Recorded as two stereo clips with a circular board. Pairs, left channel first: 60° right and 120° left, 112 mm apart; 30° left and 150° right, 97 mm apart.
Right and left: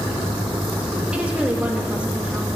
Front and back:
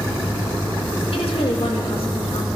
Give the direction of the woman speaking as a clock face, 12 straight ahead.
11 o'clock.